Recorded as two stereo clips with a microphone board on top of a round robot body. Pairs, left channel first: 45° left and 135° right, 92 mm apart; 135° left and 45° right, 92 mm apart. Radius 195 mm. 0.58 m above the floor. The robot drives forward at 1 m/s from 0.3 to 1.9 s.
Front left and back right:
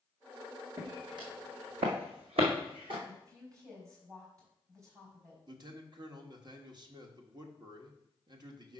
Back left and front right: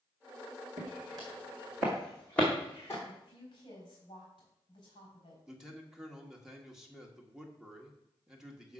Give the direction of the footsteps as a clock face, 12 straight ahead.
3 o'clock.